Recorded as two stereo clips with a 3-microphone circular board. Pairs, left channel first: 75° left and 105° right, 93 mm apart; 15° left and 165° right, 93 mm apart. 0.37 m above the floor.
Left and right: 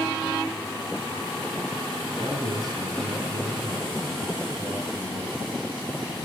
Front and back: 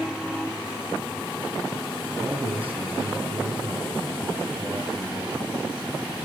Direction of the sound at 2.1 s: 150° right.